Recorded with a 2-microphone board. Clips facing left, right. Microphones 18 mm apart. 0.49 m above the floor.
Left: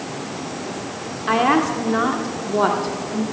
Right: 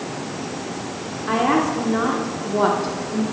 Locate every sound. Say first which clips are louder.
1.3 s a woman speaking: left 2 dB; 25° left (ahead or behind), 1.6 m; by 3.2 s 5° left (ahead or behind), 1.3 m